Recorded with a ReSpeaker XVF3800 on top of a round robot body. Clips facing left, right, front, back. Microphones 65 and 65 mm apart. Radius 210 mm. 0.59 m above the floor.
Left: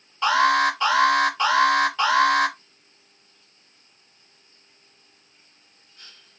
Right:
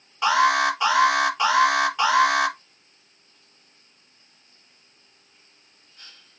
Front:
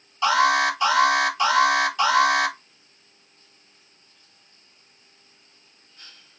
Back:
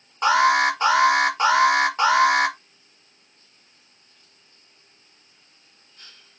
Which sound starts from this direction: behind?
An alarm, at 0.2 s.